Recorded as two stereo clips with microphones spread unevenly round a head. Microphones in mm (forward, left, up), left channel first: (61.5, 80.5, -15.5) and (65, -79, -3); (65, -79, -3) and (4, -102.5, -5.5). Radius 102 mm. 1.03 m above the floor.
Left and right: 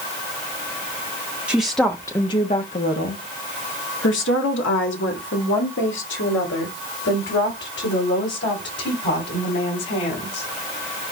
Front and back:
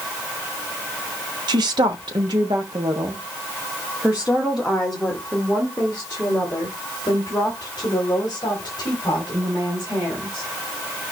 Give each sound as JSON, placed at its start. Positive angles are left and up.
{"t": 1.5, "sound": "a woman speaking", "azimuth_deg": -175, "distance_m": 1.1}